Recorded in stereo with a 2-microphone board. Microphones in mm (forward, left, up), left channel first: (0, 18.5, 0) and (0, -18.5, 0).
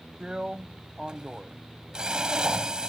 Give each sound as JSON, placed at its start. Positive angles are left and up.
{"t": 0.2, "sound": "a drill", "side_deg": -20}